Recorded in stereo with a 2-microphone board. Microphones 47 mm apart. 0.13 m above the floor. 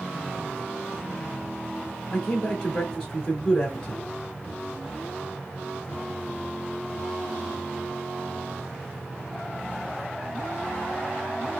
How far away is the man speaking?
About 2 m.